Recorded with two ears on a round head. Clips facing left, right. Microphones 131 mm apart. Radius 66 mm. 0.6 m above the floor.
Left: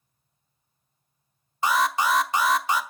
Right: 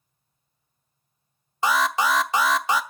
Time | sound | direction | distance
1.6 | an alarm | 60° right (ahead or behind) | 0.8 m